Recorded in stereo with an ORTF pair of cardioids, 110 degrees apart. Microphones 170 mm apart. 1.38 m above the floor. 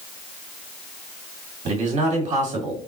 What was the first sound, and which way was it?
A man speaking, 40° right.